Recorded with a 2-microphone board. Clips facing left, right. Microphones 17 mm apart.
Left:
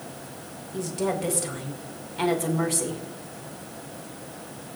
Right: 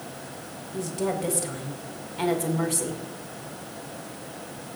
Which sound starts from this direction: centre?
A woman speaking, at 0.7 s.